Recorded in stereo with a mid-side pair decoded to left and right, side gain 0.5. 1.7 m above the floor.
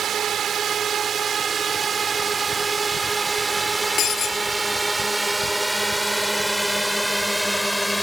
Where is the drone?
55° right; by 8.0 s straight ahead.